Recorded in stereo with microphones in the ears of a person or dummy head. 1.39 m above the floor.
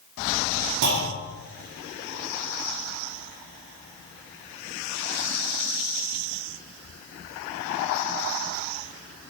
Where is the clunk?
55° right (ahead or behind), 2 m.